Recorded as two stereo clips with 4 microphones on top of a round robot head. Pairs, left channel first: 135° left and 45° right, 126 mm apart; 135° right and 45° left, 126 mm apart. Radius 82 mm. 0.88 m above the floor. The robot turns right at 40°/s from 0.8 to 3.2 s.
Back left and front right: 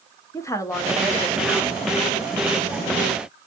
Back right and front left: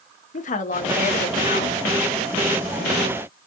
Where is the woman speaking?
155° right, 0.8 m; by 1.8 s 115° right, 0.8 m.